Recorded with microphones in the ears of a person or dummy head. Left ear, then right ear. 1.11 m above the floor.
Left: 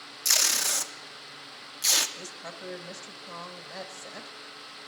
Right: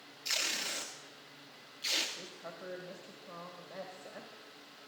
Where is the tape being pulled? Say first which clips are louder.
Left 9 dB; 45° left (ahead or behind), 0.5 m.